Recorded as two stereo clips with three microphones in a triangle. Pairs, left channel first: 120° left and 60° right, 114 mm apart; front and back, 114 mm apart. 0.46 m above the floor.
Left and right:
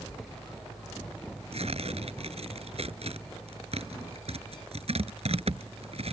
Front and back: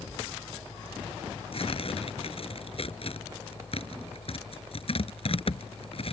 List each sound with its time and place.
1.5 s tearing paper: 35° right